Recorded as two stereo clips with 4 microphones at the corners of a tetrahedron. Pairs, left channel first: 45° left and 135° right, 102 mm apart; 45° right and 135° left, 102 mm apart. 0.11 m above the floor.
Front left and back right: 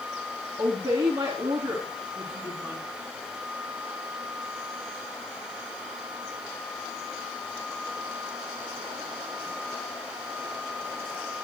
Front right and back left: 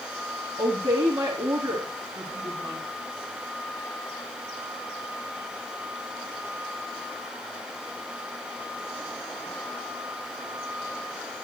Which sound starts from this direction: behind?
A woman speaking, at 0.6 s.